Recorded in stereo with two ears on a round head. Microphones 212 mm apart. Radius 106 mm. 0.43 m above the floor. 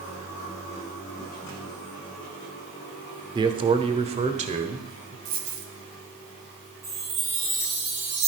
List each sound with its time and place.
3.4 s a man speaking: 20° right (ahead or behind), 1.0 m; by 5.2 s 30° right (ahead or behind), 1.7 m
5.2 s a dropped coin: 40° right (ahead or behind), 1.5 m
6.8 s a chime: 65° right (ahead or behind), 6.5 m